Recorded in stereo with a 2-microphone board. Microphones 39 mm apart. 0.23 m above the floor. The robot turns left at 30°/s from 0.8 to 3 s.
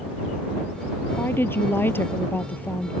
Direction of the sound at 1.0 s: 105° left.